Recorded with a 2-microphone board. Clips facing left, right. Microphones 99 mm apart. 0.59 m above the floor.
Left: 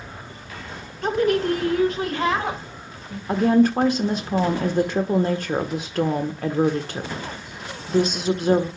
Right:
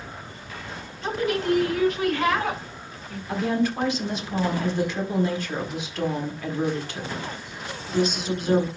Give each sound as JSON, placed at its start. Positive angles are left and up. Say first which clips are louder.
{"t": 1.0, "sound": "a woman speaking", "louder": "left 5 dB", "side_deg": 50, "distance_m": 1.9}
{"t": 3.3, "sound": "a woman speaking", "louder": "left 7 dB", "side_deg": 45, "distance_m": 1.4}